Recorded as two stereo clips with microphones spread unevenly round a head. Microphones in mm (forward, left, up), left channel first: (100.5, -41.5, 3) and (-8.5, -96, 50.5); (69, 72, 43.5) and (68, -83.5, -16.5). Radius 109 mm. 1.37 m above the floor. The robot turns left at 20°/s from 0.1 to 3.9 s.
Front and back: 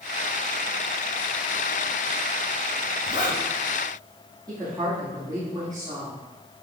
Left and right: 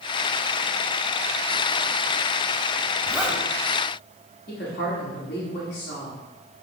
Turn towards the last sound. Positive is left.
turn(degrees=135)